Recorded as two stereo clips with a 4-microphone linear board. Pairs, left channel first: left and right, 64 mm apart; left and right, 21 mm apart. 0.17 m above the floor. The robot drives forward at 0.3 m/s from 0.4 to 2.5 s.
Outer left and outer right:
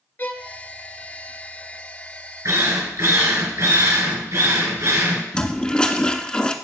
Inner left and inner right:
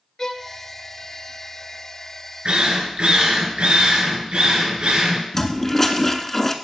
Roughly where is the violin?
Left.